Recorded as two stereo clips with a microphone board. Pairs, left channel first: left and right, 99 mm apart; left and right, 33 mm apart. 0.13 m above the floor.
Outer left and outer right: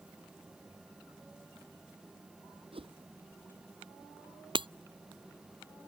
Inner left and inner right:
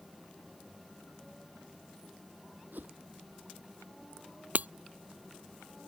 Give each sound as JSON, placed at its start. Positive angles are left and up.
{"t": 2.7, "sound": "a whoosh", "side_deg": -65}
{"t": 4.5, "sound": "breaking glass", "side_deg": -55}